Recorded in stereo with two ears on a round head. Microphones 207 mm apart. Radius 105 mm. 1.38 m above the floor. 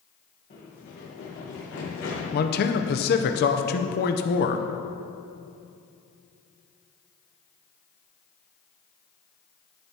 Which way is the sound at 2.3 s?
40° left (ahead or behind).